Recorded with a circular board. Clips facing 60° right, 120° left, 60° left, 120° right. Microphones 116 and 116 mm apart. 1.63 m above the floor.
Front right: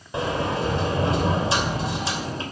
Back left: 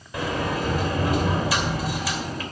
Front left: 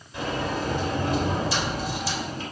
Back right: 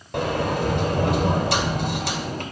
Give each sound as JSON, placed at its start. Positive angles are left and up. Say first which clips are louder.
{"t": 0.1, "sound": "a sliding door", "louder": "front right 1 dB, back right 5 dB", "azimuth_deg": -120, "distance_m": 2.5}